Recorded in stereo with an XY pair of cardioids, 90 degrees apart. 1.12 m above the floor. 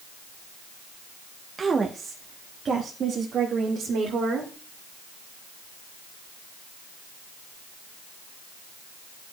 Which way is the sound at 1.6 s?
35° right.